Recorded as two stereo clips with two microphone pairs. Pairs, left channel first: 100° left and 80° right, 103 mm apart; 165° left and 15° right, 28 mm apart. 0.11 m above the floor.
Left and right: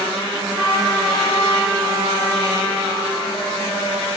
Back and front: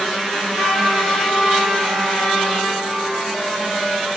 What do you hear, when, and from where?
0.3 s a trumpet: 35° right, 10 m